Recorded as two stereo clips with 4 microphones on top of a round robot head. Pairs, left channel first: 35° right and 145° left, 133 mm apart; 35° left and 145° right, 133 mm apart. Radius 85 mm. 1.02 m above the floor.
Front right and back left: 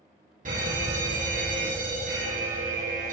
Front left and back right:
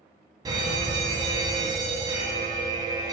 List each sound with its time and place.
0.5 s a fire alarm: 155° left, 5 m